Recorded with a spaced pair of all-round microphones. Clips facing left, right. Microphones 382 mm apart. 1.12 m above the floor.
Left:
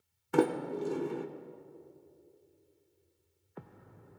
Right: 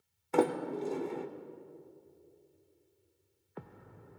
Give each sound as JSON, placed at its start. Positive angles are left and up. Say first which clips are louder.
{"t": 0.3, "sound": "a sliding door", "louder": "left 1 dB", "side_deg": 25, "distance_m": 0.8}